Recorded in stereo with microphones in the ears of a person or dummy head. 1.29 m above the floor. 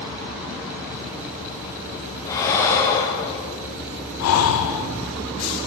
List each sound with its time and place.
2.2 s breathing: 15° left (ahead or behind), 0.6 m
4.2 s breathing: 85° left, 0.5 m